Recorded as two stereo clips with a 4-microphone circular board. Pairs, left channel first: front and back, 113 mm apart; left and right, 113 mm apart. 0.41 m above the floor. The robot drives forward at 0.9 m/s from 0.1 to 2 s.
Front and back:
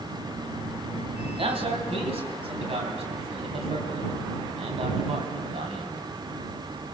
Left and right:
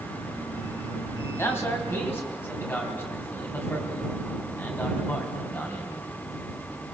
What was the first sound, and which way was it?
A man speaking, 155° left.